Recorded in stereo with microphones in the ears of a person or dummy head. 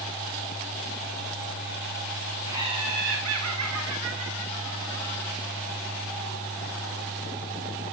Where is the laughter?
15° right (ahead or behind), 0.9 m; by 5.3 s 75° right (ahead or behind), 3 m.